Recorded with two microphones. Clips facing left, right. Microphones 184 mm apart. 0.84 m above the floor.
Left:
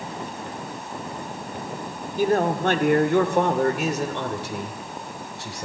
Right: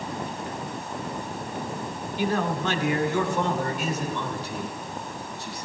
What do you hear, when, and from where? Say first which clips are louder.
2.2 s a man speaking: left 5 dB; 45° left (ahead or behind), 1.9 m; by 5.7 s 80° left, 3 m